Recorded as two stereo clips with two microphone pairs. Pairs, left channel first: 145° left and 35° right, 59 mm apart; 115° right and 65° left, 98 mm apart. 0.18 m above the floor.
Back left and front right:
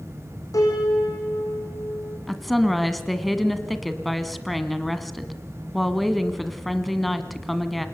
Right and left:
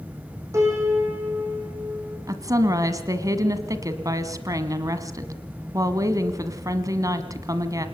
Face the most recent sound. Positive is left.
turn(degrees=60)